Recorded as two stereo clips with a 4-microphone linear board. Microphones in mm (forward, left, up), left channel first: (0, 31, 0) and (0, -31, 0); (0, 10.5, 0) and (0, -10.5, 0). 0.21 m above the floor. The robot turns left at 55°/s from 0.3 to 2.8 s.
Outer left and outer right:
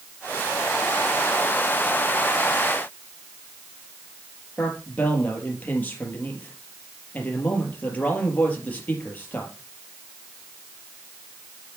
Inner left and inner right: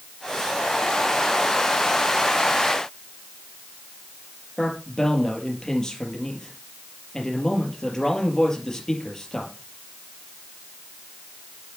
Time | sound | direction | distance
4.6 | a man speaking | 30° left (ahead or behind) | 4 m